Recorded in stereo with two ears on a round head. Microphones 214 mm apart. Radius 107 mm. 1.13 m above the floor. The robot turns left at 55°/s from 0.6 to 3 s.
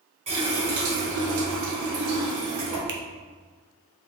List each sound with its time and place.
0.3 s a running tap: 25° right, 1.8 m; by 2.8 s 145° right, 1.8 m
2.9 s a finger snap: 45° right (ahead or behind), 0.6 m; by 3.0 s 50° right (ahead or behind), 0.6 m